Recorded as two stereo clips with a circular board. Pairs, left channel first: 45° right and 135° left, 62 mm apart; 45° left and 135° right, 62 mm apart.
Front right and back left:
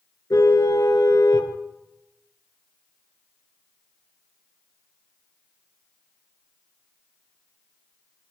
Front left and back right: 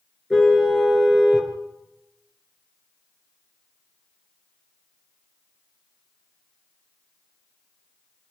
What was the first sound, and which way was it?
A car horn, 50° right.